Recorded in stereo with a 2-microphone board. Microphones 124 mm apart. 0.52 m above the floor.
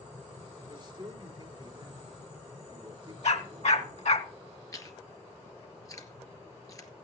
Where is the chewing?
30° left (ahead or behind), 1.8 m.